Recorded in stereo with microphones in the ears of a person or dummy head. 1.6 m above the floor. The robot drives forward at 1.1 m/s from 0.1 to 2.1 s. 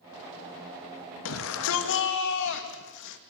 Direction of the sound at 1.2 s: 70° left (ahead or behind).